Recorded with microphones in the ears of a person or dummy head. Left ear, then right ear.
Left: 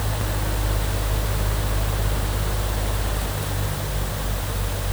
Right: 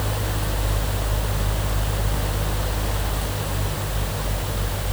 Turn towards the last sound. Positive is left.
No sound to turn to.